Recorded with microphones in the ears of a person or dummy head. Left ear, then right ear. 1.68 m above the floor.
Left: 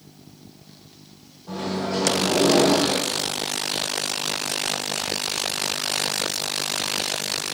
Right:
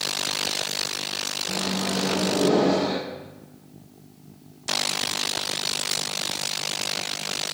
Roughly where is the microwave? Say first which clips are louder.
Left 4 dB; centre.